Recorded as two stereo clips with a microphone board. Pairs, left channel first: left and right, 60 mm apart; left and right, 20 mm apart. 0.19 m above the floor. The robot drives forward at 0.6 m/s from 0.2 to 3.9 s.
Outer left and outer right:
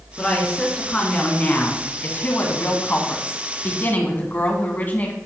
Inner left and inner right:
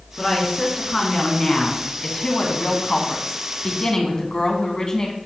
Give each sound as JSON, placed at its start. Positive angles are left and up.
{"t": 0.2, "sound": "a woman speaking", "side_deg": 20, "distance_m": 2.0}